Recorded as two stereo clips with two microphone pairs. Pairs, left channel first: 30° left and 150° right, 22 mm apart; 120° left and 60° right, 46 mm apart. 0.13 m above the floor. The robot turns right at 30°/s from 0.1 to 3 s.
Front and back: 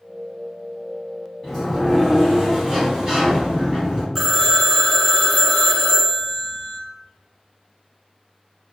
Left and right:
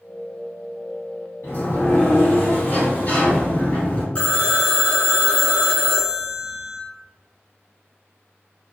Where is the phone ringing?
135° left, 0.9 m.